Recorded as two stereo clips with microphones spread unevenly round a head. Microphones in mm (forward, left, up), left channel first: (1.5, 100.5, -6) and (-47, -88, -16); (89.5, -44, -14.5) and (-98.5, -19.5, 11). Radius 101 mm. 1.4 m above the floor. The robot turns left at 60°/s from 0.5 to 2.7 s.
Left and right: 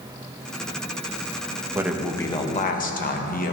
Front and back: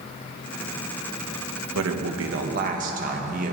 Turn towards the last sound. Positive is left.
turn(degrees=120)